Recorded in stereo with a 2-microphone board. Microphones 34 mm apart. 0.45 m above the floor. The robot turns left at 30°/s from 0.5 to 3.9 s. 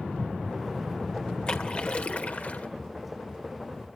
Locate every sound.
1.5 s a splash: 140° left, 1.7 m; by 2.7 s 105° left, 1.7 m